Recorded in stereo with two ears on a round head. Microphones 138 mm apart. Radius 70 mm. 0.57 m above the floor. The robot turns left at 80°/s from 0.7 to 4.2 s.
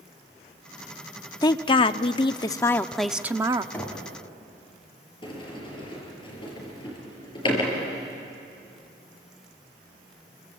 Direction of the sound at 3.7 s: 10° left (ahead or behind).